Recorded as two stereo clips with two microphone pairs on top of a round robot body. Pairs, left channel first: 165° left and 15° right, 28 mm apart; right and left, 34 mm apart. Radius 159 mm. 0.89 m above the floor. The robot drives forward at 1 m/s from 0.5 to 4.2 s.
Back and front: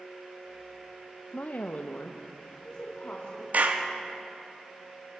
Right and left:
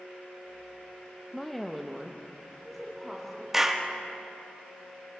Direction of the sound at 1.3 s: 175° right.